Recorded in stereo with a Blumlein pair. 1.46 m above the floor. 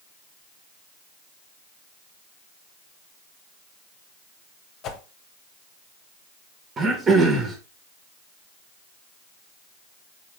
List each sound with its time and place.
4.8 s a whoosh: 30° left, 1.2 m
6.8 s throat clearing: 25° right, 1.7 m